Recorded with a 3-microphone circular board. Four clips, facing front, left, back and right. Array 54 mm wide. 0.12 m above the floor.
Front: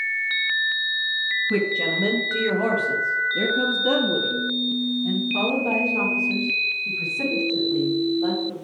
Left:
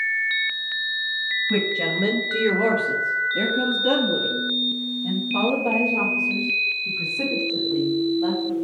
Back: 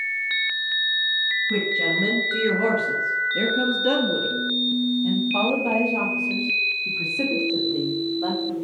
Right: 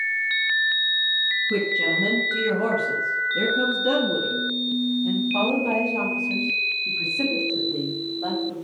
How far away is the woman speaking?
About 1.8 m.